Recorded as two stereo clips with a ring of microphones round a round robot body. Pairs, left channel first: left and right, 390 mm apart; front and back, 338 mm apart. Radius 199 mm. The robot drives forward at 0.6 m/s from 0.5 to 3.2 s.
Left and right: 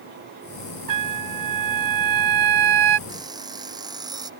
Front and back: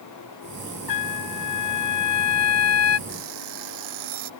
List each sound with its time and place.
0.9 s a trumpet: 45° right; by 3.0 s 55° right
3.1 s an alarm clock: 170° right